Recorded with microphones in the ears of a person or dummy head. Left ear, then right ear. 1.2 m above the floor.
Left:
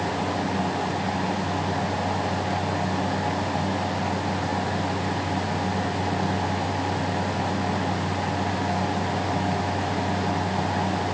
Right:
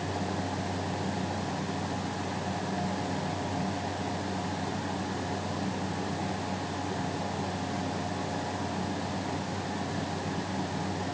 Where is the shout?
I don't hear a shout.